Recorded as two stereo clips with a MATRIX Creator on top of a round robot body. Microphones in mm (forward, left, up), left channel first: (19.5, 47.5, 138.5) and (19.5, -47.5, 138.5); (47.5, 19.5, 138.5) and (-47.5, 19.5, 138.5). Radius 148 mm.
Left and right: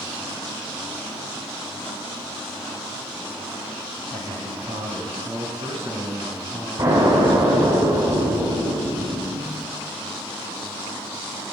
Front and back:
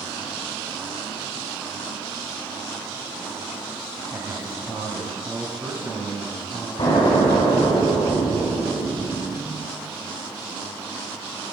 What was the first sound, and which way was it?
A man speaking, 110° right.